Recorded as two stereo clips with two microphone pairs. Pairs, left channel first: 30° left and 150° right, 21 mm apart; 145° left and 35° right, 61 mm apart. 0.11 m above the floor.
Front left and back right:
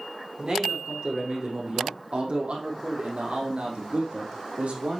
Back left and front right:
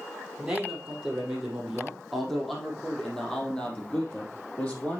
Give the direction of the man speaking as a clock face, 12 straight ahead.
4 o'clock.